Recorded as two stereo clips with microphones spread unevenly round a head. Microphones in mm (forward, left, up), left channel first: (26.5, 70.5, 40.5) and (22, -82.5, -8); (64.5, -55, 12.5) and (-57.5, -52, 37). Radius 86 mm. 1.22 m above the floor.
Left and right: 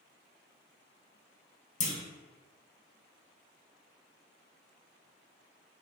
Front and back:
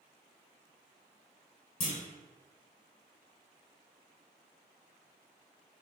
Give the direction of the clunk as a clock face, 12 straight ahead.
10 o'clock.